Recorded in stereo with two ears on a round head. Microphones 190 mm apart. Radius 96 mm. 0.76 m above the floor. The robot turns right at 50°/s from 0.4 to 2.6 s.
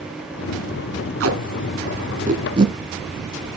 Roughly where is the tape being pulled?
Right.